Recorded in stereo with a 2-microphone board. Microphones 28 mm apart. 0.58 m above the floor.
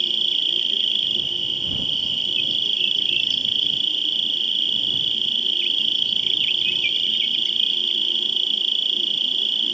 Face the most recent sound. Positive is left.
turn(degrees=10)  # may be behind; listen again after turning